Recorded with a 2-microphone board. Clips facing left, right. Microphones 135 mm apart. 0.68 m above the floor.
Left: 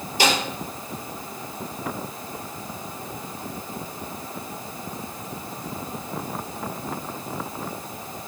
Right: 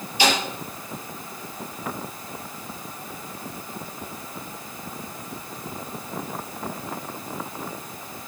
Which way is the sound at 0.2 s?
45° left (ahead or behind).